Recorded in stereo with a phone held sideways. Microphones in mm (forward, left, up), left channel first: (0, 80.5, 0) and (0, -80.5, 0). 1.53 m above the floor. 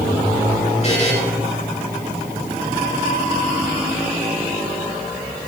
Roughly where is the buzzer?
Left.